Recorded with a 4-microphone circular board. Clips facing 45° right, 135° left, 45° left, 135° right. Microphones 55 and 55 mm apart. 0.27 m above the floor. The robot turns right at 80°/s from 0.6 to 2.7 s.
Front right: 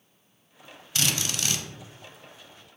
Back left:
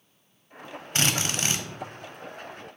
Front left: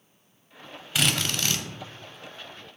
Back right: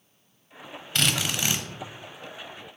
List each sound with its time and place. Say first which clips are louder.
0.9 s a drill: back left 3 dB, even; 125° left, 0.9 m; by 1.6 s straight behind, 0.9 m